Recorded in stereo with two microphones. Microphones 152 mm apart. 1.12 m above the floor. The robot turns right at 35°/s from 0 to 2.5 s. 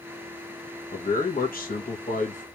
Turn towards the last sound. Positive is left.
turn(degrees=120)